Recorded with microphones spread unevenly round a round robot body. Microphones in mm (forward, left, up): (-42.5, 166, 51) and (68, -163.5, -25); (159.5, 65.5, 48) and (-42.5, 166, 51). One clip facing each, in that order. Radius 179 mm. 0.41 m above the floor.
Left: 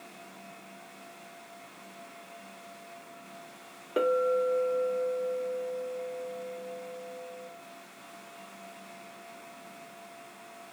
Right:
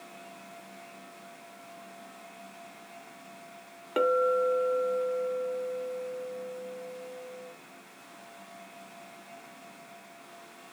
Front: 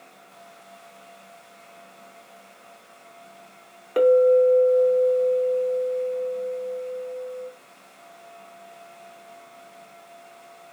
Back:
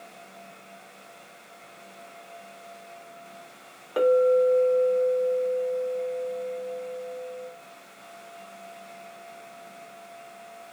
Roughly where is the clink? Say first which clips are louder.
Right 1 dB, front 4 dB; ahead right.